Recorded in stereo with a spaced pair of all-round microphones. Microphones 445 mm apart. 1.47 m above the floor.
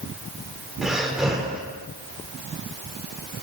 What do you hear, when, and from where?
0.8 s breathing: centre (ahead or behind), 3.5 m